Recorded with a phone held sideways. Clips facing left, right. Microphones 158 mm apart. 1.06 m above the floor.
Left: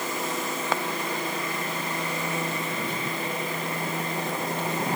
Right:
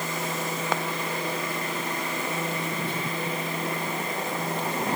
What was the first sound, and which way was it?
Only background noise.